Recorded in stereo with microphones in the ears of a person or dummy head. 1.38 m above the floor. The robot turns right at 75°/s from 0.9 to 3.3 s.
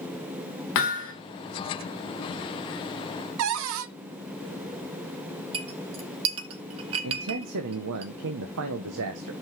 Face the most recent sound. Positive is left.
turn(degrees=-70)  # may be behind; listen again after turning